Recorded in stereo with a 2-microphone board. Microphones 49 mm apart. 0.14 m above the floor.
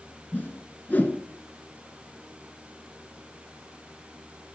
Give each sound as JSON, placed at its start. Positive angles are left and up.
{"t": 0.3, "sound": "a whoosh", "side_deg": 35, "distance_m": 1.4}